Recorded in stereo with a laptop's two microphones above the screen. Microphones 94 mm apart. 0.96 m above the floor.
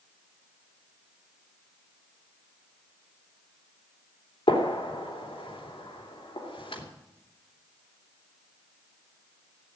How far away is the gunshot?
About 3 m.